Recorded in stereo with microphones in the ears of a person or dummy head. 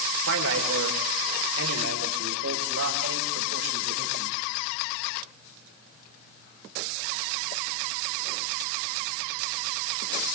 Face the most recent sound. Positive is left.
turn(degrees=-65)  # may be behind; listen again after turning